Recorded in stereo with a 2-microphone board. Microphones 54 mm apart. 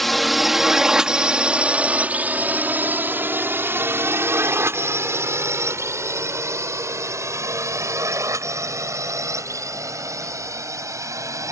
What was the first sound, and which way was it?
A drone, 5° left (ahead or behind).